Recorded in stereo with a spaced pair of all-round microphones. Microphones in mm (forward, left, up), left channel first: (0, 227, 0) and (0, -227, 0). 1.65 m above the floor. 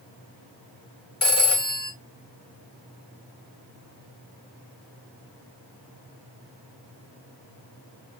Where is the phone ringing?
30° left (ahead or behind), 1.1 m.